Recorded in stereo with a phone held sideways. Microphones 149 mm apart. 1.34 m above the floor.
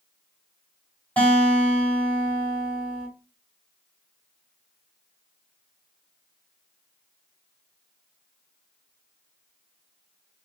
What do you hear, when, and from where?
1.2 s a guitar: 15° left (ahead or behind), 4 m